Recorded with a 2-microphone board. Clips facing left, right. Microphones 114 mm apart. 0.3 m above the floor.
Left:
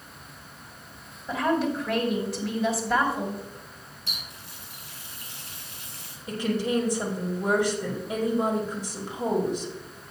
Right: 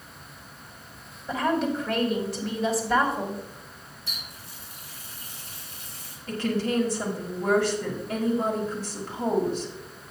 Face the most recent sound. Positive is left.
turn(degrees=15)  # may be behind; listen again after turning